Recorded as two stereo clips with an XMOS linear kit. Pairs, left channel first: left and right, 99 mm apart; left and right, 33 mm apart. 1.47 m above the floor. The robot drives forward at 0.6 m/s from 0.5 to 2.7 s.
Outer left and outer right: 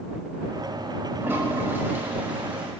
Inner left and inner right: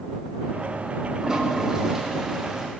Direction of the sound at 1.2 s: 20° right (ahead or behind).